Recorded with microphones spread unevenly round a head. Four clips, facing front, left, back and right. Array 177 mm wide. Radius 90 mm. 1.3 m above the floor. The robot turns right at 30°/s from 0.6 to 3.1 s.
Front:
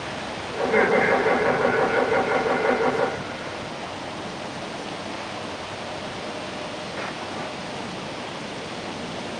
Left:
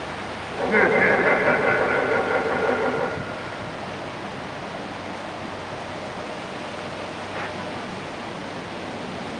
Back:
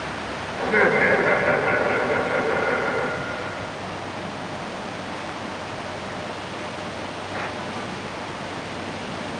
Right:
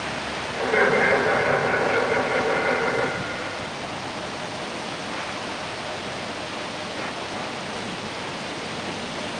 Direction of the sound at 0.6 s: 100° left.